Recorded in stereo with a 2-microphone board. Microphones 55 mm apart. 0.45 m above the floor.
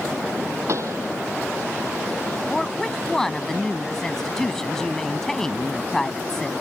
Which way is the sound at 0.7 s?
60° right (ahead or behind).